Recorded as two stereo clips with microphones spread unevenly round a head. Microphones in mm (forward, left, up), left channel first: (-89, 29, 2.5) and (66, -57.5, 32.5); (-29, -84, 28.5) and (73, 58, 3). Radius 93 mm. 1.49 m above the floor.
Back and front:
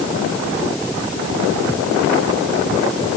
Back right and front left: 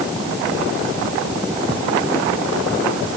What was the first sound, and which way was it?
Only background noise.